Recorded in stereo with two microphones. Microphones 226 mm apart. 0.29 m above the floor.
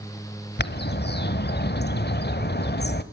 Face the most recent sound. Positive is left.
turn(degrees=45)  # may be behind; listen again after turning